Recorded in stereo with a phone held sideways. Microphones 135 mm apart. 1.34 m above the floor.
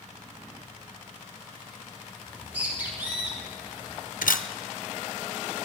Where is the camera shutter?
85° left, 0.6 m.